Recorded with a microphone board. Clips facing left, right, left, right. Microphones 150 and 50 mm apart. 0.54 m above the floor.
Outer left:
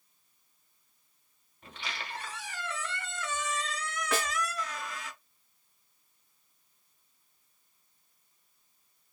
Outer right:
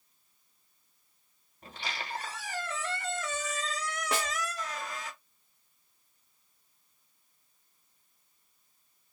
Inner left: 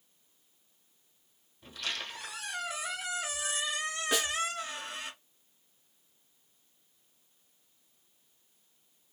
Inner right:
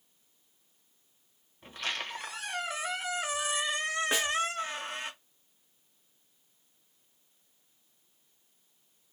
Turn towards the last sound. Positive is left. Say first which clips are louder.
# outer left 1 dB, inner left 1 dB
turn(degrees=-30)  # may be behind; listen again after turning